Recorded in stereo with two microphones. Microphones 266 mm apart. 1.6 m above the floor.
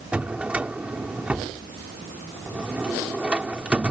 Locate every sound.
0.1 s a drawer: 5° right (ahead or behind)